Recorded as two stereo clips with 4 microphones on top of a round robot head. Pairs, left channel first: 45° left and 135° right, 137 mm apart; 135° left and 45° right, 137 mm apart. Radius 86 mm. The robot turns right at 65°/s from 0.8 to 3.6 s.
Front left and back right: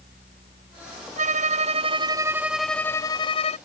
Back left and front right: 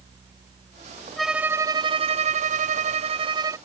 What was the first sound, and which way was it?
A violin, 140° right.